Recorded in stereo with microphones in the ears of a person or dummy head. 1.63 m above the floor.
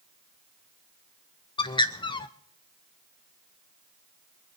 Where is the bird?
25° left (ahead or behind), 0.7 m.